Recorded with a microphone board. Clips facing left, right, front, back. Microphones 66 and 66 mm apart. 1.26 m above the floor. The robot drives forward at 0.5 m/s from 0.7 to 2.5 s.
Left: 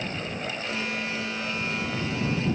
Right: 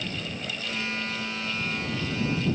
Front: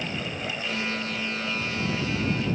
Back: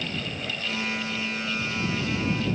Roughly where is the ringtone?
I don't hear a ringtone.